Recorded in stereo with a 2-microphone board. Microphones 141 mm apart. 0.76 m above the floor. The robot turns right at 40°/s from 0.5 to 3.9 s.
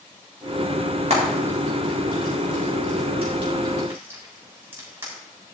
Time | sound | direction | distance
1.1 | frying | 50° right (ahead or behind) | 6 m